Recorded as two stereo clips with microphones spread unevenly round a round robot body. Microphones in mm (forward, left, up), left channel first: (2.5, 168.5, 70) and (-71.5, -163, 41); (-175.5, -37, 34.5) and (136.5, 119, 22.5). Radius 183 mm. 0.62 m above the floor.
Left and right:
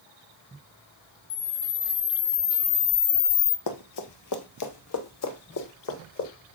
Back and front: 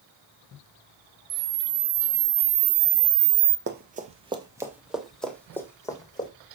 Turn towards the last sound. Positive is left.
turn(degrees=130)